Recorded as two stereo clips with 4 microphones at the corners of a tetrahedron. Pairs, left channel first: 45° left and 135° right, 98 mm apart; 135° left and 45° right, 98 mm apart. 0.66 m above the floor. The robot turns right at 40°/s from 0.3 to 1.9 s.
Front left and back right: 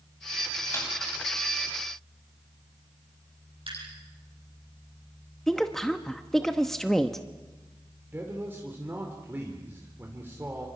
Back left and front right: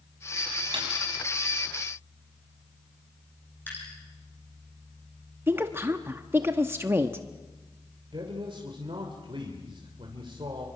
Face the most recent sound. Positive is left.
turn(degrees=-65)